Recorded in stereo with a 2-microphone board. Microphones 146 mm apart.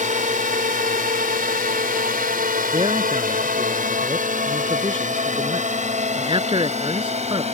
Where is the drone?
60° right (ahead or behind); by 7.5 s 45° right (ahead or behind).